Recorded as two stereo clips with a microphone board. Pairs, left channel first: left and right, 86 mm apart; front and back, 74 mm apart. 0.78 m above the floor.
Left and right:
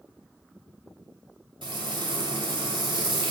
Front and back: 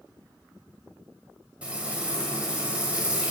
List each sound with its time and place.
1.6 s frying: 105° right, 1.5 m